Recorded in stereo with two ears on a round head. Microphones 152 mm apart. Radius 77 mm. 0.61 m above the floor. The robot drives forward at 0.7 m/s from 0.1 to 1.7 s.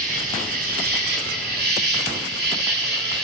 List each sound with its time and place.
0.0 s an insect: 55° right (ahead or behind), 5 m; by 3.2 s 65° right (ahead or behind), 4.5 m